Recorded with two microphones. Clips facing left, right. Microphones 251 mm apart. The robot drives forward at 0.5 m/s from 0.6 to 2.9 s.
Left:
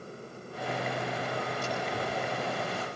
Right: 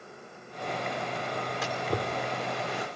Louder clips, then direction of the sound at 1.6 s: Right 2 dB; 80° right.